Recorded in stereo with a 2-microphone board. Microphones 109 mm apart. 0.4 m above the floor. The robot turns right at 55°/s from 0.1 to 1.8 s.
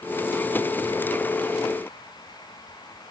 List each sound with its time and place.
Only background noise.